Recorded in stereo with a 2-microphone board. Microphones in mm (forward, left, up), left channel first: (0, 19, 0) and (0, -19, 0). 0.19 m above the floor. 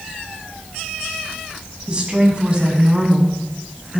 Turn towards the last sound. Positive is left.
turn(degrees=-25)  # may be behind; listen again after turning